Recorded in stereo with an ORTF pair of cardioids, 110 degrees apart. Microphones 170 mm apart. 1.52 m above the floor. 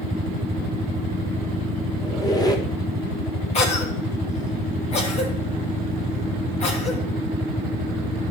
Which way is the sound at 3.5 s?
40° left.